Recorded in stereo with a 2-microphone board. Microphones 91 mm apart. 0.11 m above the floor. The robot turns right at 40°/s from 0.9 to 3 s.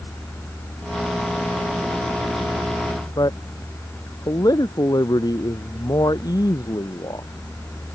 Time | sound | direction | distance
3.2 | a man speaking | 50° left (ahead or behind) | ?